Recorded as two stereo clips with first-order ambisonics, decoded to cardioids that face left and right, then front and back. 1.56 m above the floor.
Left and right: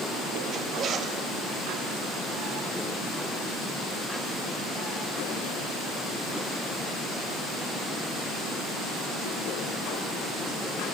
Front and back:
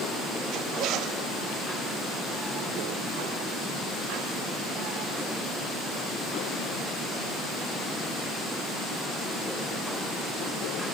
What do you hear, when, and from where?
0.5 s a zipper: 145° right, 1.7 m